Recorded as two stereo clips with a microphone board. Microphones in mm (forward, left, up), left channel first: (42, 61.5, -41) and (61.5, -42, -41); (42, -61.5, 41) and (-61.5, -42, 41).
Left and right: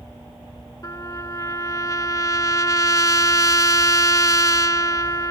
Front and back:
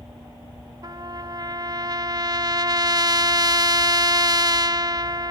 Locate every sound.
0.8 s a trumpet: 140° left